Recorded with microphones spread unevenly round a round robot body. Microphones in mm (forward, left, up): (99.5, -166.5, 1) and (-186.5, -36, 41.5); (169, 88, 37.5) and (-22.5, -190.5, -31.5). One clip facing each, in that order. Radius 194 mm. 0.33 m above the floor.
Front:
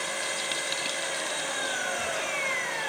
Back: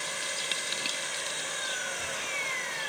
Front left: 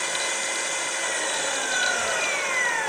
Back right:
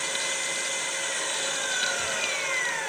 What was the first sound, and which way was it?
An engine running, 25° left.